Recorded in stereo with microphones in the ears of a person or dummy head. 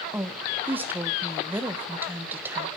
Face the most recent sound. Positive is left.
turn(degrees=-10)  # may be behind; listen again after turning